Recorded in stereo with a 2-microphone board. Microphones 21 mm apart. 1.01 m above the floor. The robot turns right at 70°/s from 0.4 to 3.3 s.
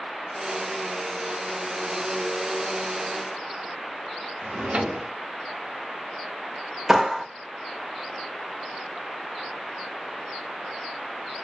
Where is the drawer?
70° right (ahead or behind), 1.0 m.